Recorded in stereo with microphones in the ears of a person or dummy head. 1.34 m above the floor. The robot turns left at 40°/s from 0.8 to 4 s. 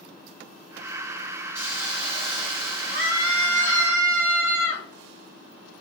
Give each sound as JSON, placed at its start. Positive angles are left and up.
{"t": 1.6, "sound": "a hiss", "azimuth_deg": -10, "distance_m": 2.0}
{"t": 2.9, "sound": "a scream", "azimuth_deg": -55, "distance_m": 2.0}